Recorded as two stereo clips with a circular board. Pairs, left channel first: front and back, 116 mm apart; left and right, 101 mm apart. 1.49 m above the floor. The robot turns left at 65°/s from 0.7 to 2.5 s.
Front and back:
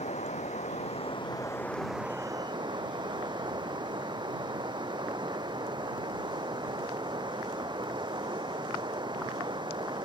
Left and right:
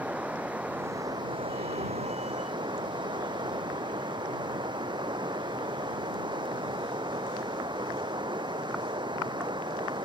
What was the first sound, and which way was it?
Running water, 15° right.